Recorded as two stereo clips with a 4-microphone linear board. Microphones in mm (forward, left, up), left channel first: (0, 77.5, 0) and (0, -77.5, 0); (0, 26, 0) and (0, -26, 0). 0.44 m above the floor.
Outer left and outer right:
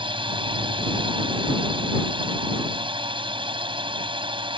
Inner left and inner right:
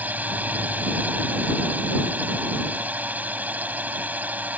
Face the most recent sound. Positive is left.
turn(degrees=-35)  # may be behind; listen again after turning